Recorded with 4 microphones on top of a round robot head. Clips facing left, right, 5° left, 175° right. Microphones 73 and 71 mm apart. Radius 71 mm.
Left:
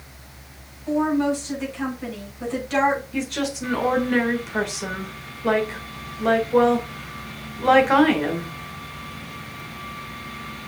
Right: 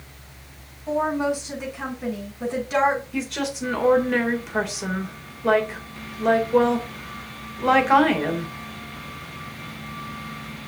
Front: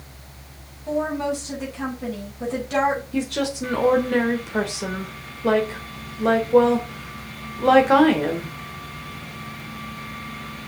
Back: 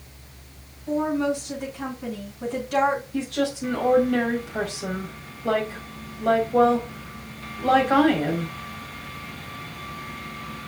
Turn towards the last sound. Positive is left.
turn(degrees=0)